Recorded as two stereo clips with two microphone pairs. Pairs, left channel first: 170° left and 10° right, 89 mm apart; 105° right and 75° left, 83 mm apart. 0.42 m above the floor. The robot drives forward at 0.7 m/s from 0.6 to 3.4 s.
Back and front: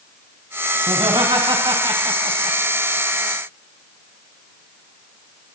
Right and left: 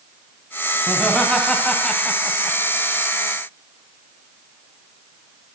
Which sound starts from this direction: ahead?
Laughter, at 0.9 s.